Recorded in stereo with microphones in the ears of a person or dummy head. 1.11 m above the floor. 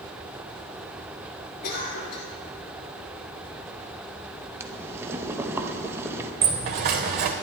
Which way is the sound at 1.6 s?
45° left (ahead or behind).